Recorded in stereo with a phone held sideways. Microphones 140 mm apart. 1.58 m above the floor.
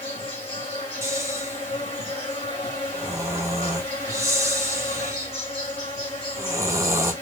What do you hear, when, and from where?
0.0 s an insect: 40° left (ahead or behind), 1.7 m
1.0 s snoring: 20° right (ahead or behind), 0.8 m